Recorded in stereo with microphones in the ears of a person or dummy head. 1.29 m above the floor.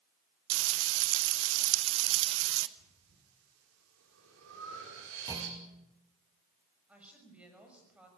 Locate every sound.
0.5 s frying: 80° right, 1.1 m
2.8 s breathing: 80° right, 5 m
5.3 s a clunk: 20° right (ahead or behind), 3 m
6.9 s a woman speaking: 5° right (ahead or behind), 6.5 m